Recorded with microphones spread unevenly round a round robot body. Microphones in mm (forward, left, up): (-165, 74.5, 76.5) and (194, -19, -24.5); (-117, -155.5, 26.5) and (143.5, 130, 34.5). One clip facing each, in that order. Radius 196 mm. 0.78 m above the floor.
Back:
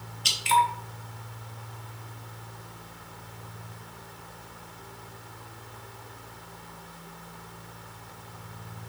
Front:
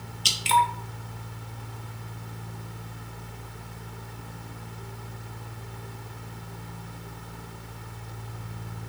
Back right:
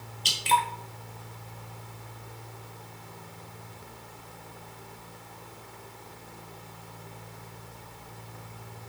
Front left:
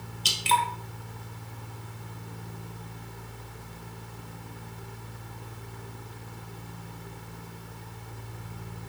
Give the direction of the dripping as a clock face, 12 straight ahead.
1 o'clock.